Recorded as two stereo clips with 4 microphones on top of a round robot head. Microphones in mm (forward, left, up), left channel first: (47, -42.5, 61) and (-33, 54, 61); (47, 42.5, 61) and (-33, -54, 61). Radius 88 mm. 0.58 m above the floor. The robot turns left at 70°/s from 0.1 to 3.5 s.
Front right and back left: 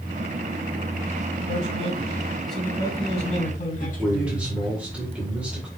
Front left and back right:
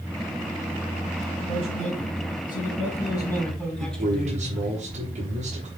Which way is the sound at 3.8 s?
150° right.